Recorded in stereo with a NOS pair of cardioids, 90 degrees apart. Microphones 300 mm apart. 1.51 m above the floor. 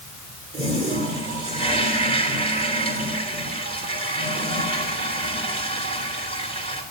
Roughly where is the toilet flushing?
Ahead right.